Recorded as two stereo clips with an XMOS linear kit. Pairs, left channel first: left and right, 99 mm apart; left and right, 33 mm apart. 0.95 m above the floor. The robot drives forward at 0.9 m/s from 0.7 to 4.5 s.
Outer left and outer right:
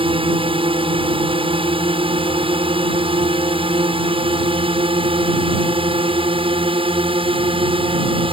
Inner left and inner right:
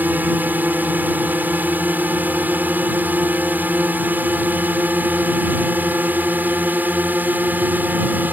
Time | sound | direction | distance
0.0 | a drone | 65° right (ahead or behind) | ?